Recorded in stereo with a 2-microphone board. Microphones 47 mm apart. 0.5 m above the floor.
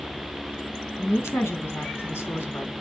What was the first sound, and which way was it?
A woman speaking, 65° left (ahead or behind).